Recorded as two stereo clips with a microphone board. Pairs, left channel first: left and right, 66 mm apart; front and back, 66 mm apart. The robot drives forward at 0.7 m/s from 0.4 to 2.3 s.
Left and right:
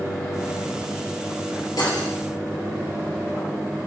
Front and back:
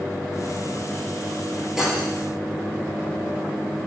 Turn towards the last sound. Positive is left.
turn(degrees=100)